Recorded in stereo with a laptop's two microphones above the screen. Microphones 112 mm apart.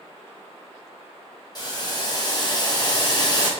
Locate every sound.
1.6 s boiling: 35° left (ahead or behind), 1.0 m